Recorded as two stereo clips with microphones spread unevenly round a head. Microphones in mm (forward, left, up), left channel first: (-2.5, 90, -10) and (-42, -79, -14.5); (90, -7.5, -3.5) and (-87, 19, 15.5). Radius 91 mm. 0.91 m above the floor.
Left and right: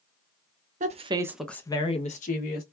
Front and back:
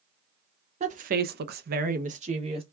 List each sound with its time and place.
0.8 s a woman speaking: 135° right, 0.8 m; by 2.6 s 110° left, 1.2 m